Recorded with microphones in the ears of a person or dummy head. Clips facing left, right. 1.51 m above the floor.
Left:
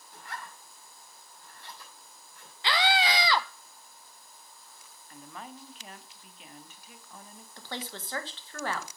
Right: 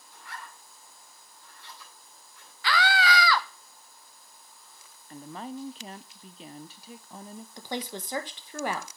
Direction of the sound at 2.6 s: 20° left (ahead or behind).